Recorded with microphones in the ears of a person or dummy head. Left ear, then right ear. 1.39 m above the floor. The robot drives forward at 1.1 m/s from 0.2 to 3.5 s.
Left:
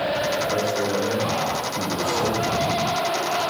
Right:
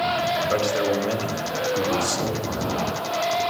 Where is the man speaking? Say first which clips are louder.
Right 1 dB; 85° right, 4 m; by 3.4 s 50° right (ahead or behind), 5 m.